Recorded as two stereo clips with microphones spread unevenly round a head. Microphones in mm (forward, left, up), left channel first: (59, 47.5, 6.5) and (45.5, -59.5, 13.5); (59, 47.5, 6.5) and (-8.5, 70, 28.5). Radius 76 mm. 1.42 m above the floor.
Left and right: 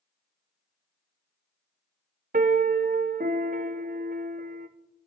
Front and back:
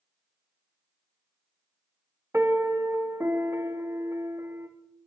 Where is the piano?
125° right, 0.6 m.